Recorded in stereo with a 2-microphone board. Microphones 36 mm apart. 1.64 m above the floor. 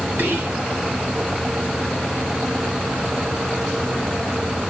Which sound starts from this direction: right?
Whispering, at 0.2 s.